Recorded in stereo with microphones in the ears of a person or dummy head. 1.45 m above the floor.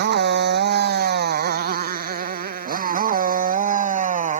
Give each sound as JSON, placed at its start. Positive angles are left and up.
{"t": 0.0, "sound": "a motorcycle", "side_deg": -55}